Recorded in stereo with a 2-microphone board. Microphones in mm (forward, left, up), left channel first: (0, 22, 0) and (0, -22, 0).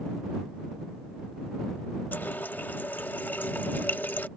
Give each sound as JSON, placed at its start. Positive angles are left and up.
{"t": 2.1, "sound": "a running tap", "side_deg": 50}